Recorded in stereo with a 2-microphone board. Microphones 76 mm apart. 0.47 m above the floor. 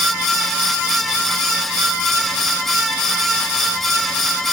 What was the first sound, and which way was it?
Only background noise.